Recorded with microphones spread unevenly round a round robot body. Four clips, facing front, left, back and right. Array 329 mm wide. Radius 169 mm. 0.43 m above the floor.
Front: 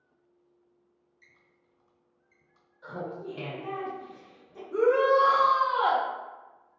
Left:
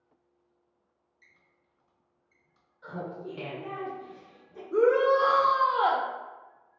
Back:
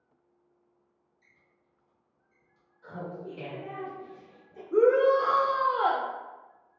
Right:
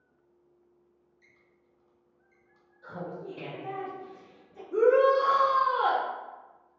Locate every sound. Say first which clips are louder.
1.2 s a squeak: right 4 dB, front 4 dB; 5° right, 1.9 m
2.8 s laughter: left 1 dB, front 2 dB; 15° left, 2.0 m
4.7 s a shout: right 1 dB, back 1 dB; 160° left, 0.8 m